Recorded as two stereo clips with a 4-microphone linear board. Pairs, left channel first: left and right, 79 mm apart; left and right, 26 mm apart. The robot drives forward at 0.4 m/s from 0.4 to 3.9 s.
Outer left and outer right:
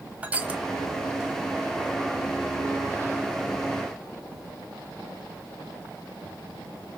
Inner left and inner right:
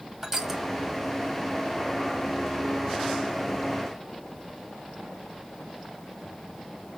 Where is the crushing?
15° right (ahead or behind), 1.2 m.